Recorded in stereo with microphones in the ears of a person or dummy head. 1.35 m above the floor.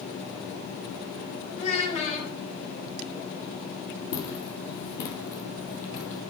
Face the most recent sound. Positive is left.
turn(degrees=40)  # may be behind; listen again after turning